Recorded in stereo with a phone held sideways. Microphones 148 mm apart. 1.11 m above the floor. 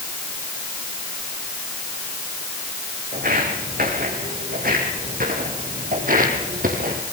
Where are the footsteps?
75° right (ahead or behind), 5 m; by 7.0 s 65° right (ahead or behind), 3 m.